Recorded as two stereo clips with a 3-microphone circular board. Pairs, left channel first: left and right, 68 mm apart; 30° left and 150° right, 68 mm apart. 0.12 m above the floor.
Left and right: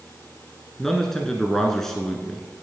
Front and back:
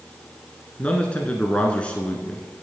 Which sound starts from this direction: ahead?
A man speaking, at 0.8 s.